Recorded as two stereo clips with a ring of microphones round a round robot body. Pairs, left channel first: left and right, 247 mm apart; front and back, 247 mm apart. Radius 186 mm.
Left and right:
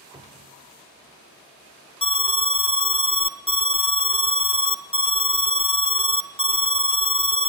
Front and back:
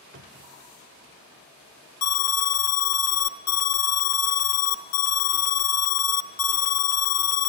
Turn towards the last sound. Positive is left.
turn(degrees=20)